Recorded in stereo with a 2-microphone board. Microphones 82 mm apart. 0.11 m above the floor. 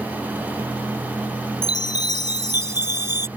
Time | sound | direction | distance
1.6 | a chime | 60° left (ahead or behind) | ?